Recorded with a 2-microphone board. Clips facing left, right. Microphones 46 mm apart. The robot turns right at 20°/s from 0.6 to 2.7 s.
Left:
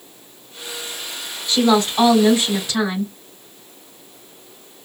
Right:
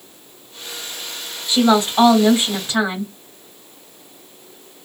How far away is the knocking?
I don't hear knocking.